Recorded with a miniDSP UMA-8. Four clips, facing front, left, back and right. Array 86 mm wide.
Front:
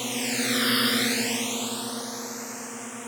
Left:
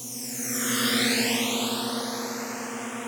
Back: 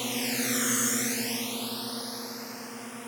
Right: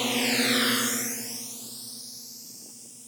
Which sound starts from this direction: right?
A drone, at 0.0 s.